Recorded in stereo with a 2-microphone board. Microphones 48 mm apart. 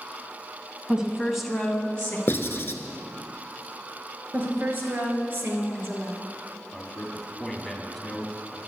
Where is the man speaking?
Centre (ahead or behind), 1.6 m.